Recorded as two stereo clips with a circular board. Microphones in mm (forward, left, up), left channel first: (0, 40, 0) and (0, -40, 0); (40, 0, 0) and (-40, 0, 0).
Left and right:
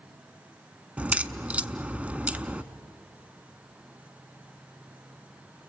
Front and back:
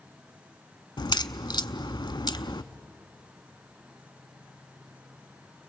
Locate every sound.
1.0 s a crack: 20° right, 0.7 m